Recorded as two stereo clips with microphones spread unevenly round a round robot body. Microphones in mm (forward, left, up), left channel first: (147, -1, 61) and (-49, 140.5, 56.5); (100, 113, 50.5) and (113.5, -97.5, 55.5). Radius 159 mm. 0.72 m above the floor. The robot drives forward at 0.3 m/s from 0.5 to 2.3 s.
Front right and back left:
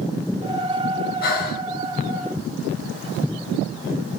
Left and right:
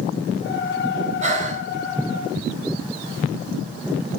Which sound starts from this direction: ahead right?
Breathing, at 1.2 s.